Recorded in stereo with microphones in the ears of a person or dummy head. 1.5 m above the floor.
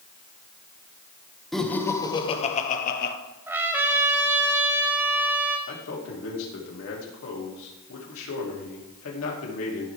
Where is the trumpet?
10° right (ahead or behind), 0.7 m.